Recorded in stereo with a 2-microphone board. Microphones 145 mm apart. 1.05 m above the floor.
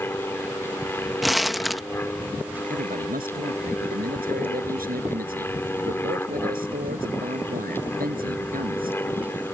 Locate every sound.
0.0 s an aircraft: 15° left (ahead or behind)
1.2 s crumpling: centre (ahead or behind)
2.7 s a man speaking: 85° right